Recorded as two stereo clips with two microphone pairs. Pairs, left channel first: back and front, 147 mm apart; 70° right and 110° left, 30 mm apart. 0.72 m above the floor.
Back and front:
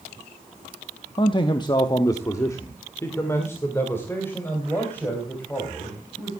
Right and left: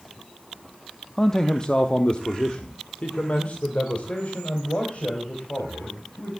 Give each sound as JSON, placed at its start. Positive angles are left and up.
{"t": 1.2, "sound": "a man speaking", "azimuth_deg": -140, "distance_m": 0.7}